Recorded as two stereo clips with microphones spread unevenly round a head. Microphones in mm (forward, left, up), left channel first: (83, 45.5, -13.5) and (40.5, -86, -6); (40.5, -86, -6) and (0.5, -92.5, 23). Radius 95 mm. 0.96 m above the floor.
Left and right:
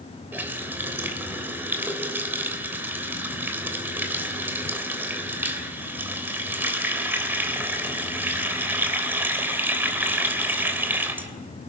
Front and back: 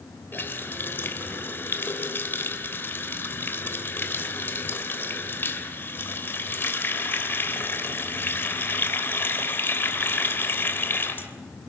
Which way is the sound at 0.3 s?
30° right.